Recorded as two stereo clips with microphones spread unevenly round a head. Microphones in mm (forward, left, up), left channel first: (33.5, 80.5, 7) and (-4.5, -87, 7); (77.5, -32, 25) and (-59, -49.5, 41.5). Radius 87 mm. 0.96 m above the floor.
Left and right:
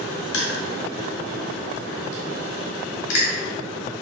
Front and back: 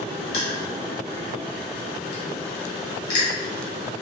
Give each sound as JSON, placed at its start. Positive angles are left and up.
{"t": 0.3, "sound": "crushing", "azimuth_deg": 70, "distance_m": 1.3}